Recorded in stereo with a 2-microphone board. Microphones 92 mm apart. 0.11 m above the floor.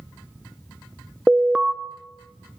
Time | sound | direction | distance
1.3 | an alarm | 5° right (ahead or behind) | 0.8 m